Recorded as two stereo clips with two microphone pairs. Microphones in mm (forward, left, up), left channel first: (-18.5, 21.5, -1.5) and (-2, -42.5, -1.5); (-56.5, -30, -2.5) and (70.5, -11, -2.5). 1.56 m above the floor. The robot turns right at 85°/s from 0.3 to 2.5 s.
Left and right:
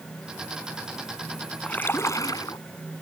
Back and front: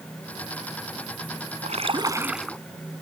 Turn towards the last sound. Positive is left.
turn(degrees=105)